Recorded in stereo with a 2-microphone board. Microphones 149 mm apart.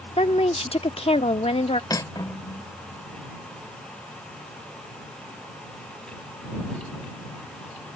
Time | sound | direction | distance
0.2 | a woman speaking | 40° left (ahead or behind) | ?
1.9 | cutlery clinking | 25° left (ahead or behind) | ?